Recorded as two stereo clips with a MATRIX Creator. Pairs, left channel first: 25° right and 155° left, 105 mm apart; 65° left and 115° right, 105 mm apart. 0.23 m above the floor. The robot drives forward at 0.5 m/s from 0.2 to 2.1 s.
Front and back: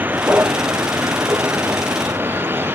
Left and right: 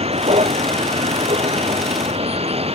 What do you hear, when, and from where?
0.0 s a vehicle: 130° right; by 2.8 s 135° right